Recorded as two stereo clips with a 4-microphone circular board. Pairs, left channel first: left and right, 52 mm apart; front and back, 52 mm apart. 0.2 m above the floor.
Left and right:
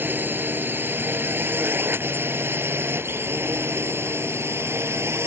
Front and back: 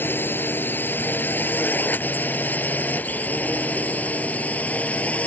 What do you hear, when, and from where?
0.0 s a drone: 45° right; by 5.3 s 60° right